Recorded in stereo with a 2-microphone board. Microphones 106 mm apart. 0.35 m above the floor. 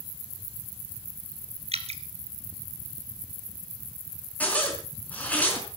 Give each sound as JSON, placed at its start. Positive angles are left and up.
{"t": 1.7, "sound": "dripping", "side_deg": -80, "distance_m": 1.8}
{"t": 4.4, "sound": "a zipper", "side_deg": 15, "distance_m": 5.0}